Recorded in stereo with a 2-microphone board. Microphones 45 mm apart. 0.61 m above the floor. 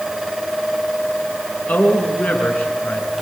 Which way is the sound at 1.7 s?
40° left (ahead or behind).